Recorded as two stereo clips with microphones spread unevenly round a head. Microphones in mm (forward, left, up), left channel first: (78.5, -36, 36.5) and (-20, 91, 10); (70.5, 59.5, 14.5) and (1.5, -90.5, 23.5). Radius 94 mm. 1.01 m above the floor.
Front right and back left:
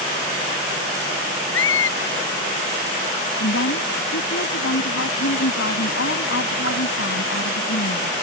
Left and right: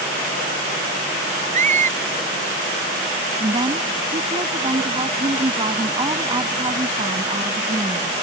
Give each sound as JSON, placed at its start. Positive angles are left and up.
{"t": 1.5, "sound": "a squeak", "azimuth_deg": -70}
{"t": 3.4, "sound": "a woman speaking", "azimuth_deg": -55}